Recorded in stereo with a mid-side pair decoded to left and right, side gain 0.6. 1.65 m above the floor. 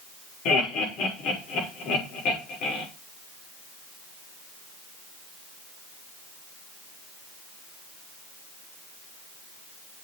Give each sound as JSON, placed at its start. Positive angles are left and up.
{"t": 0.5, "sound": "laughter", "azimuth_deg": 65, "distance_m": 6.0}